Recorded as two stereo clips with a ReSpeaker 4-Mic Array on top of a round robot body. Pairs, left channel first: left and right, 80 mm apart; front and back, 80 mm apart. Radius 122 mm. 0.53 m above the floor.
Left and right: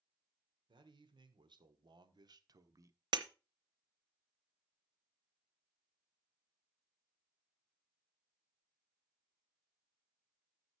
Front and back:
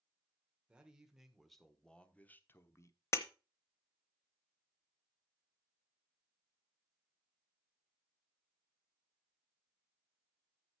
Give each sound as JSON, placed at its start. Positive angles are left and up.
{"t": 0.7, "sound": "a man speaking", "azimuth_deg": -100, "distance_m": 1.8}
{"t": 3.1, "sound": "breaking glass", "azimuth_deg": -55, "distance_m": 0.9}